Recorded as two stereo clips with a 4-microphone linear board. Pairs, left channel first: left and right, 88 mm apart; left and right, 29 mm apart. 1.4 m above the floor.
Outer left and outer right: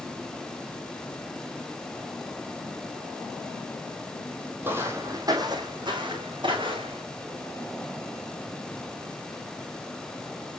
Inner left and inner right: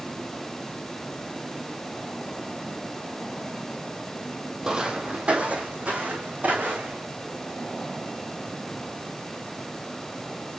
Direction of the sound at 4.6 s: 20° right (ahead or behind).